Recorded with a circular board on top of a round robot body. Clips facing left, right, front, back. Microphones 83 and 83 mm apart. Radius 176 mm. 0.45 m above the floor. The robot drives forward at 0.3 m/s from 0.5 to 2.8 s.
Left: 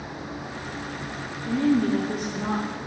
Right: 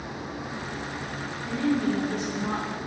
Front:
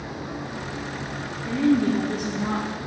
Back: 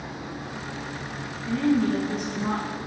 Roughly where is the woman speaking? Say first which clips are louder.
Left 4 dB, front 2 dB; left.